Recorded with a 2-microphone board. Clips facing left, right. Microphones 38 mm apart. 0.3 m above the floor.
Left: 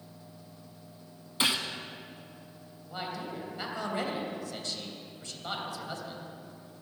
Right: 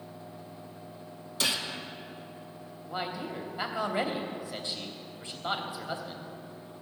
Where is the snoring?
No snoring in this recording.